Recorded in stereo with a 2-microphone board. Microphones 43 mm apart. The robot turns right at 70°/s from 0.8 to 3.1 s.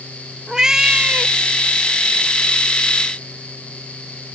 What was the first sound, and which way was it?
A cat meowing, 165° right.